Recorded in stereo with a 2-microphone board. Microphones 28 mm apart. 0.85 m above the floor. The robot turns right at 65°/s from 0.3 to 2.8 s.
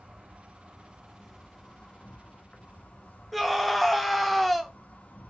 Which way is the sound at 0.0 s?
65° right.